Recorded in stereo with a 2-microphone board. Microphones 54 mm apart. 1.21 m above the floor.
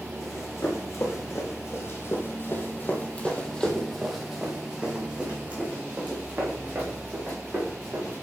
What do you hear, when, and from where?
0.2 s running footsteps: 55° left (ahead or behind), 3 m; by 8.2 s 35° right (ahead or behind), 5 m